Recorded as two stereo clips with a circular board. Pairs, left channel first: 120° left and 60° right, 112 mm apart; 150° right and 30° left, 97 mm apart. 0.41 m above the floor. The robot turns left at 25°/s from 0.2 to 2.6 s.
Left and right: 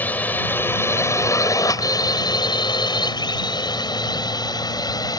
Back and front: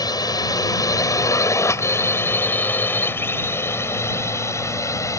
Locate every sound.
0.0 s a drone: 170° right; by 5.2 s 165° left